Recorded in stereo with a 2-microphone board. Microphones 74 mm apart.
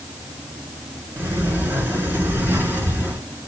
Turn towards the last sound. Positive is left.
turn(degrees=-30)  # may be behind; listen again after turning